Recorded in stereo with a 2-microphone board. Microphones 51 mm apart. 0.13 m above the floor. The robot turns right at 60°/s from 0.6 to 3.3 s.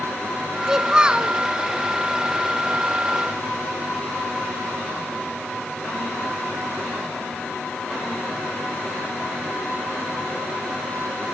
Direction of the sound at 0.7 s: 10° right (ahead or behind).